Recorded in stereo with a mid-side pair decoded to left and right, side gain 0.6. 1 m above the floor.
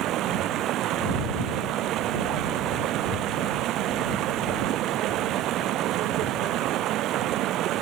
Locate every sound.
0.0 s running water: 60° right